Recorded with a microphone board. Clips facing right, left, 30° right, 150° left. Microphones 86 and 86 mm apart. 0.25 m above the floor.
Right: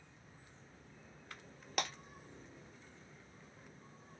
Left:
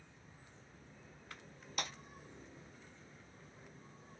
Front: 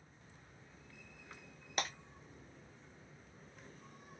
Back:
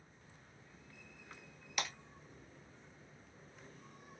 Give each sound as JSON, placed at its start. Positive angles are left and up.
{"t": 1.8, "sound": "breaking glass", "azimuth_deg": -80, "distance_m": 0.7}